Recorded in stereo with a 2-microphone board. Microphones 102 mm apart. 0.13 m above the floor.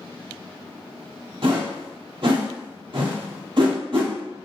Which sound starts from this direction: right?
A whoosh, at 1.4 s.